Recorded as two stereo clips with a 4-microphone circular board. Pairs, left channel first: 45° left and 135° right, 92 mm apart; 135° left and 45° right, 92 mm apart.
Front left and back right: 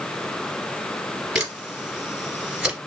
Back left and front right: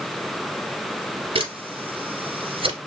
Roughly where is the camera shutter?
Ahead right.